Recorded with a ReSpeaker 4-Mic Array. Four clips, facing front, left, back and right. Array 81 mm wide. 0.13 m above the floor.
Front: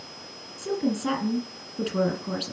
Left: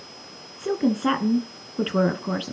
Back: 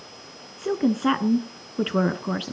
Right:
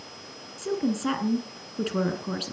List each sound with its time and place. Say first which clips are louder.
0.6 s a woman speaking: left 4 dB, back 4 dB; 145° left, 1.4 m